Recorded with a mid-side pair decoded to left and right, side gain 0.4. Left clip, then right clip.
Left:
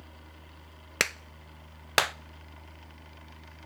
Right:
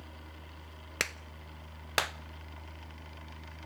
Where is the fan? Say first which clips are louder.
Right 1 dB; 15° right, 1.6 m.